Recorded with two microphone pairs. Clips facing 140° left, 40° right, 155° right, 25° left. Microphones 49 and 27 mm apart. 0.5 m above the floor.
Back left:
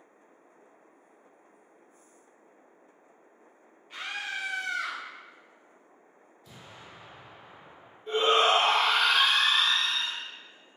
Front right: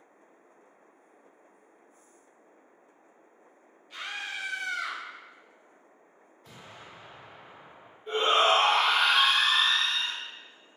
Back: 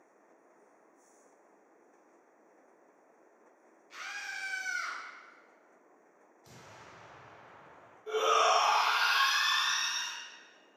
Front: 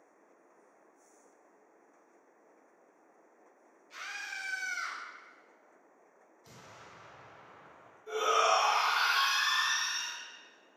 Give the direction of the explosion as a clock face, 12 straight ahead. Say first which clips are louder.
Front right 1 dB, even; 2 o'clock.